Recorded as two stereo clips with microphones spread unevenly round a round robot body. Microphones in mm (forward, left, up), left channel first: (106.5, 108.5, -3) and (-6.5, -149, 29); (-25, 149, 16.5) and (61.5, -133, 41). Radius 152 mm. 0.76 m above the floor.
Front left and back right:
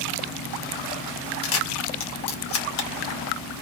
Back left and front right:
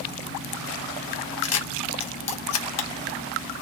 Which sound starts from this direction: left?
A camera shutter, at 1.4 s.